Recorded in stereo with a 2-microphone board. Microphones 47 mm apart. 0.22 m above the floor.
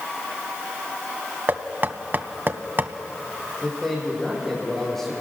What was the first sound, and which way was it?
Knocking, 45° right (ahead or behind).